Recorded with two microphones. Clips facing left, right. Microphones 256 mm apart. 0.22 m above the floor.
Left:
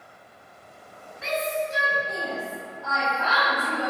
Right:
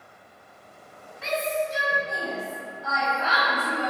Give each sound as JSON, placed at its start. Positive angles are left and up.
{"t": 1.2, "sound": "a shout", "side_deg": 20, "distance_m": 1.2}